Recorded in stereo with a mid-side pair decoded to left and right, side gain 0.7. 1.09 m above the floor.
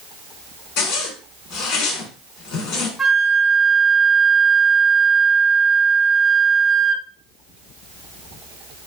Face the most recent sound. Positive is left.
turn(degrees=0)